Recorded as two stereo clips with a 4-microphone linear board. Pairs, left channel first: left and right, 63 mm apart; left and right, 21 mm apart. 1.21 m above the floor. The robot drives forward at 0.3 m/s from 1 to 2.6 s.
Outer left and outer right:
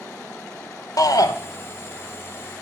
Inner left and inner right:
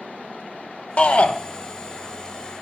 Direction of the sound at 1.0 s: 80° left.